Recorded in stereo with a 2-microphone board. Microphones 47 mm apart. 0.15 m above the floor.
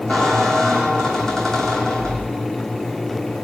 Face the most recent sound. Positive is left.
turn(degrees=10)  # may be behind; listen again after turning